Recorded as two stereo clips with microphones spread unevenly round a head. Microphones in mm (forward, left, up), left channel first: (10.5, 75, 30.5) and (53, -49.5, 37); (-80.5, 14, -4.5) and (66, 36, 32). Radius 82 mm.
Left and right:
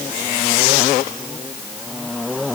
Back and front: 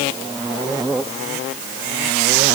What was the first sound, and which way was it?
Only background noise.